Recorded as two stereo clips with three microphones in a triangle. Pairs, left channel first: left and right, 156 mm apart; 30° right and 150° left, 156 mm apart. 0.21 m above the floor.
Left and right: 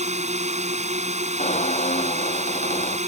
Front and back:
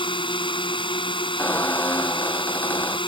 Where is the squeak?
50° left.